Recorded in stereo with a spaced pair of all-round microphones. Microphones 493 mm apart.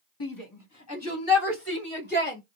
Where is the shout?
45° left (ahead or behind), 1.8 m; by 2.4 s 20° left (ahead or behind), 3 m.